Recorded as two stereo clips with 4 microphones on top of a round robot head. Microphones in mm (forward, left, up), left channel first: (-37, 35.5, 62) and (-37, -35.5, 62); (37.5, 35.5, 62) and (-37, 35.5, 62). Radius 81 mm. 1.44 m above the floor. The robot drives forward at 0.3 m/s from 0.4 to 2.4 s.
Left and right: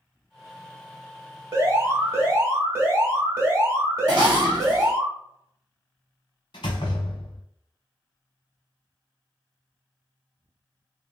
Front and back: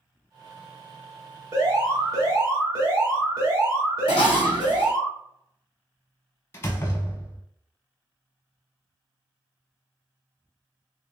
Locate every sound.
1.5 s an alarm: 135° right, 1.9 m; by 5.1 s 140° right, 2 m
4.1 s dishes clattering: 40° right, 0.8 m
6.5 s a door slam: 45° left, 0.6 m